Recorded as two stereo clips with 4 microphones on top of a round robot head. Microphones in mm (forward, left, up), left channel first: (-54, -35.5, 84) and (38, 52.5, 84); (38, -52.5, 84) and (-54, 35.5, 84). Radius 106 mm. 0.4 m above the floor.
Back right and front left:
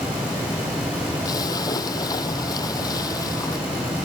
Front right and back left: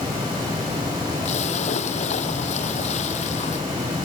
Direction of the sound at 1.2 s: 75° right.